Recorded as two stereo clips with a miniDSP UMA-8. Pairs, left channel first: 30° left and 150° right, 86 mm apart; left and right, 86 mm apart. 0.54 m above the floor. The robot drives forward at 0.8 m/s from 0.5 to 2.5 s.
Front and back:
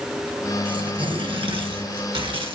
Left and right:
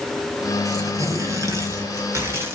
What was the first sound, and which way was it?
Tearing paper, 135° right.